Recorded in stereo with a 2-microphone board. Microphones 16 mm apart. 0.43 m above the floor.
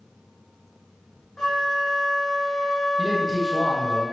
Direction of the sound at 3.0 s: 15° right (ahead or behind).